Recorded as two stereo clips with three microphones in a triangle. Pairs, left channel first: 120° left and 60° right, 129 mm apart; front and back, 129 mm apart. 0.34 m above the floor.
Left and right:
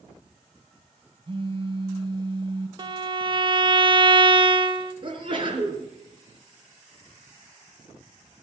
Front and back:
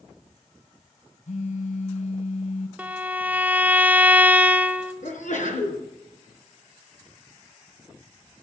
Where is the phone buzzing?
15° right, 1.2 m.